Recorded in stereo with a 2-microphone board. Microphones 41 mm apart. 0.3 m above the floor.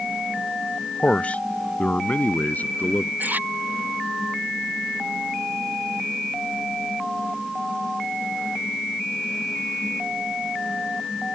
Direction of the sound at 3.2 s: 50° right (ahead or behind).